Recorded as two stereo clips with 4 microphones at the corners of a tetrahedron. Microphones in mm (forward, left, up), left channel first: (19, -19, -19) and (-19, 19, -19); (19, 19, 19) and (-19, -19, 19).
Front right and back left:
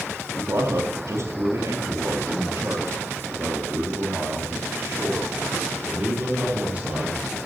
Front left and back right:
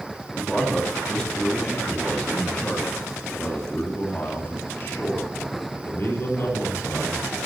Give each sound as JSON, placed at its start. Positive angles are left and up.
{"t": 0.3, "sound": "a man speaking", "azimuth_deg": 130, "distance_m": 4.0}